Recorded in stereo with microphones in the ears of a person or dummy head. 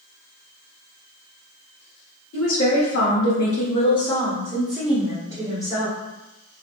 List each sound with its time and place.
2.3 s a woman speaking: 70° left (ahead or behind), 1.0 m; by 6.0 s 15° right (ahead or behind), 1.7 m